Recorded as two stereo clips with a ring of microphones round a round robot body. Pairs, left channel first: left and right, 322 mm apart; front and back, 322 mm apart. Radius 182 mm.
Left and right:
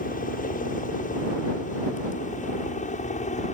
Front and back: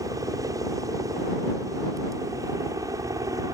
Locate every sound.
0.0 s a helicopter: 115° left